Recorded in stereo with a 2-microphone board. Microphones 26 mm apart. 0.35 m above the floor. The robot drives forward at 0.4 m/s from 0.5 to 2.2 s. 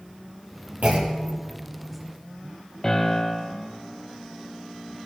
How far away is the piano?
About 2 m.